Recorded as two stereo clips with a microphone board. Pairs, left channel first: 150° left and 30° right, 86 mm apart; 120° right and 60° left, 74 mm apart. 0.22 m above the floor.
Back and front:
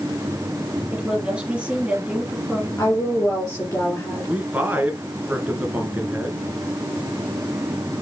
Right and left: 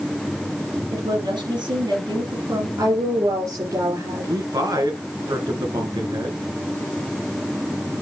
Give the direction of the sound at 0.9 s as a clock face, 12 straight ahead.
10 o'clock.